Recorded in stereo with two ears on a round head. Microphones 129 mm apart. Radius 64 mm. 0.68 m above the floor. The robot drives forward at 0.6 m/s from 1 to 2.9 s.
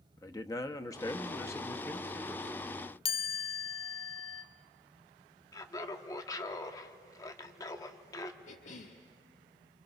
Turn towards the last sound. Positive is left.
turn(degrees=55)  # may be behind; listen again after turning